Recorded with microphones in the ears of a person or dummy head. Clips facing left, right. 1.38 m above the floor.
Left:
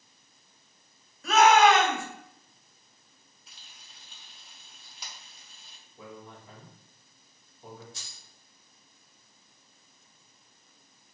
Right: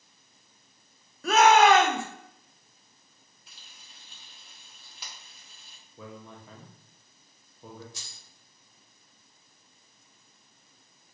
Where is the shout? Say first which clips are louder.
Right 1 dB; 45° right (ahead or behind), 0.7 m.